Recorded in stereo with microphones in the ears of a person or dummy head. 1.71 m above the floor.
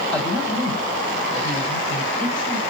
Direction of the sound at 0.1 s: 5° left (ahead or behind).